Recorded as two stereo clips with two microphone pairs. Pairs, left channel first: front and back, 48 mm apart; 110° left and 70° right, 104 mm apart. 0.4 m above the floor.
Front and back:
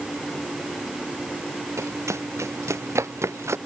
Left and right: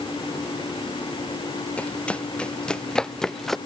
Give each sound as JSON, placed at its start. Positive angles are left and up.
{"t": 1.8, "sound": "running footsteps", "azimuth_deg": -170}